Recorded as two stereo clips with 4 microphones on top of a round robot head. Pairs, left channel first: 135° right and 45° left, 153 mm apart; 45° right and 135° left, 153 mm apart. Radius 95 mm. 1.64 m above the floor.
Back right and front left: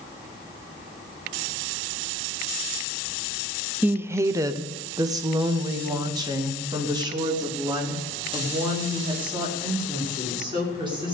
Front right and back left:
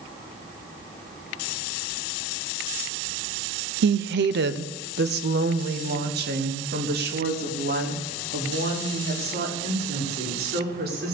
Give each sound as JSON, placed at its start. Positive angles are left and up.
{"t": 3.8, "sound": "a woman speaking", "azimuth_deg": 125, "distance_m": 0.5}